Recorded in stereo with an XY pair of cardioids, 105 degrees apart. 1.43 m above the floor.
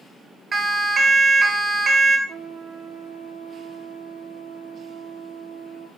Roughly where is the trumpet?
Ahead right.